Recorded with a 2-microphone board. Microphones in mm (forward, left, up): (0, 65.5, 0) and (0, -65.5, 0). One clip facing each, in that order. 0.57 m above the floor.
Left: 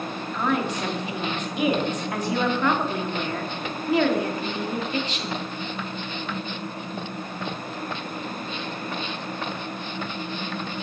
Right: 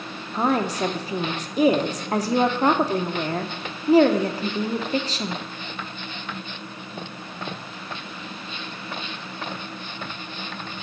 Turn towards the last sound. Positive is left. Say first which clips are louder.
# right 3 dB
turn(degrees=-35)  # may be behind; listen again after turning